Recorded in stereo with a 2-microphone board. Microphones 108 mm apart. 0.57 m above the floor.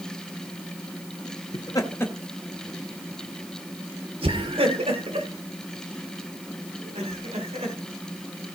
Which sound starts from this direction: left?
Laughter, at 1.5 s.